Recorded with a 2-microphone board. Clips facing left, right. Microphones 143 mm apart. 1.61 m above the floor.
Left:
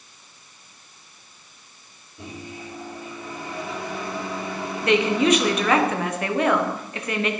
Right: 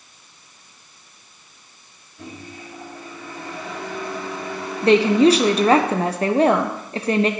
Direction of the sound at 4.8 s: 35° right (ahead or behind).